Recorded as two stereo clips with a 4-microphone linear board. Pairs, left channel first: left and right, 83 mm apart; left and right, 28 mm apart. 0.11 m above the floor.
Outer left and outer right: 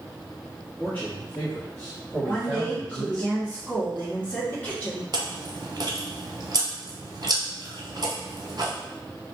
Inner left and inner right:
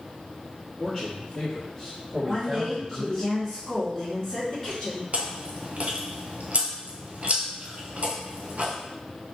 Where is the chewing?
60° right (ahead or behind), 0.9 m.